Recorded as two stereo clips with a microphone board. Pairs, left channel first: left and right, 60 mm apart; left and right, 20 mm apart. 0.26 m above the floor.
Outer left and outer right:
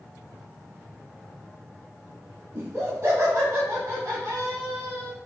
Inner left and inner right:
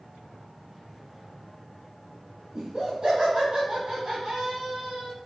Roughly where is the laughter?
Right.